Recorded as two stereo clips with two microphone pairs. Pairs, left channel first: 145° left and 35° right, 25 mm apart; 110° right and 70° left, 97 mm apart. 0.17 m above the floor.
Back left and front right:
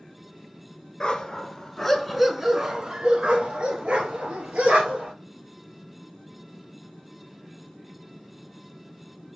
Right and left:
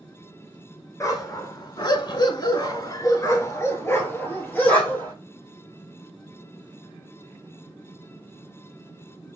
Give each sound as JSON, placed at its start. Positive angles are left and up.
{"t": 1.0, "sound": "a dog barking", "azimuth_deg": -160, "distance_m": 0.9}